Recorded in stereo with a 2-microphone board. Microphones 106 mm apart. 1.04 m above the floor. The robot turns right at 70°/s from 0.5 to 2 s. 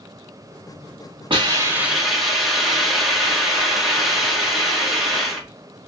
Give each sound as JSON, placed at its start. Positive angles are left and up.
{"t": 1.3, "sound": "a hiss", "azimuth_deg": -50, "distance_m": 1.3}